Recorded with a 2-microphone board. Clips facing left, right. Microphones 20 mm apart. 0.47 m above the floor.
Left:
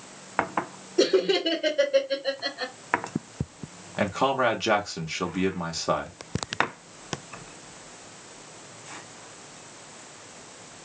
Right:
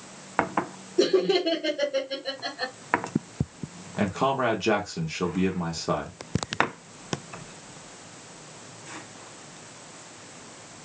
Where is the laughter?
30° left (ahead or behind), 0.9 m.